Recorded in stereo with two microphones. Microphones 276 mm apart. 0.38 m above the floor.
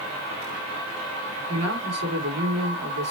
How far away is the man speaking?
About 3.5 m.